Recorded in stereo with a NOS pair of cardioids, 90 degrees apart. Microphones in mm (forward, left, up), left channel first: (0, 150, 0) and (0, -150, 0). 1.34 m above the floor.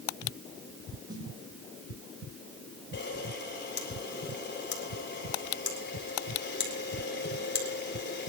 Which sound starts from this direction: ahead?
A snare drum, at 1.1 s.